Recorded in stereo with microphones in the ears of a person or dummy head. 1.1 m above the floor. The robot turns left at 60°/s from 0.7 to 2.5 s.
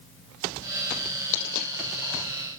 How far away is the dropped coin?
About 4 m.